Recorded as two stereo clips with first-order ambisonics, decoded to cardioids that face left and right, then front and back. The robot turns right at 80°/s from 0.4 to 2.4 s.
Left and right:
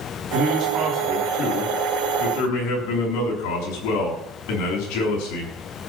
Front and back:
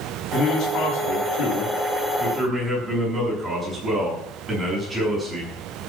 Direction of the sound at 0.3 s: 55° right.